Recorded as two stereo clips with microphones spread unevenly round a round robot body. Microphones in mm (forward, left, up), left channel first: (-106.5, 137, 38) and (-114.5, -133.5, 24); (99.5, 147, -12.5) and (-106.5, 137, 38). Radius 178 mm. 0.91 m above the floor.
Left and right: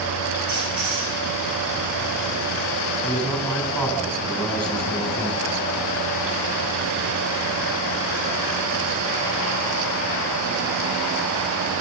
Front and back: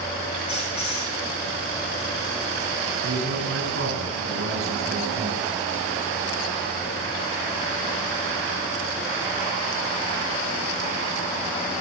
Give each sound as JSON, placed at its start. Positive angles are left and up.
{"t": 0.5, "sound": "a squeak", "azimuth_deg": -50, "distance_m": 9.5}
{"t": 3.0, "sound": "a man speaking", "azimuth_deg": 175, "distance_m": 8.0}